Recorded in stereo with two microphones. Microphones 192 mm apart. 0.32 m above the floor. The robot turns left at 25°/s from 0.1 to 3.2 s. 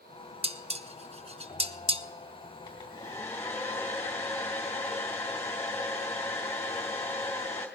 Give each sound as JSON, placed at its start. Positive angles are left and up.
{"t": 0.4, "sound": "dishes clattering", "side_deg": -30, "distance_m": 0.6}
{"t": 2.7, "sound": "a hair dryer", "side_deg": 25, "distance_m": 2.5}